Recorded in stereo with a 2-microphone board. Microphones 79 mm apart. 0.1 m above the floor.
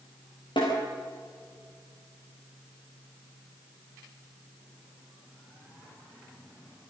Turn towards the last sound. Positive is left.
turn(degrees=75)  # may be behind; listen again after turning